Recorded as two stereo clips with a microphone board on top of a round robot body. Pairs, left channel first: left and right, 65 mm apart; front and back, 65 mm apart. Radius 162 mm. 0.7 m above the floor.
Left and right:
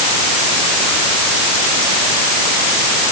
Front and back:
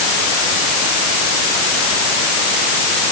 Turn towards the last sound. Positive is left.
No sound to turn to.